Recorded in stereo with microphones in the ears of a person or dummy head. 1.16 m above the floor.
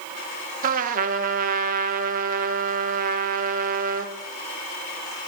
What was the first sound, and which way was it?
A trumpet, 40° right (ahead or behind).